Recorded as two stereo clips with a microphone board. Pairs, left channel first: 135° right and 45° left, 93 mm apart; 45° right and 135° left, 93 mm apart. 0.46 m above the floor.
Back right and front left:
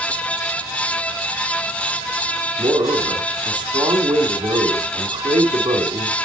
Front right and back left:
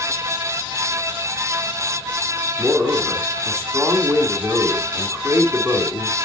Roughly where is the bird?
I don't hear a bird.